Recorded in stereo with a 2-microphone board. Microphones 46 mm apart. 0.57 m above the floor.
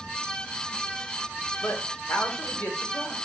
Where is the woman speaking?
60° left (ahead or behind), 1.2 m; by 3.1 s 40° left (ahead or behind), 2.5 m.